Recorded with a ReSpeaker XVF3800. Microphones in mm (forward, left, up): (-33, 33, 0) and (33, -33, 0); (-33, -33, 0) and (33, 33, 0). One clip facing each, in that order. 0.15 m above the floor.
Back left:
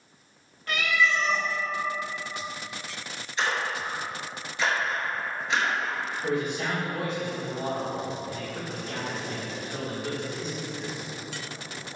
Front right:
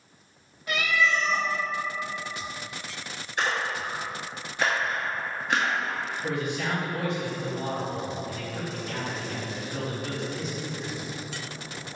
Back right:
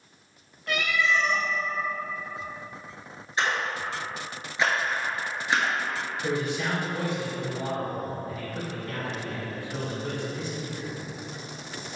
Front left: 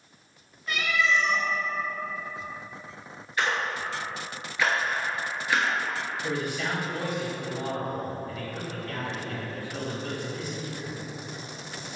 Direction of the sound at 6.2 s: Straight behind.